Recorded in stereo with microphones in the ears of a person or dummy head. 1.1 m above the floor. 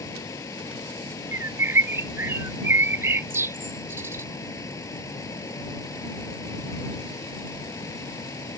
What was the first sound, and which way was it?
A fan, 15° left (ahead or behind).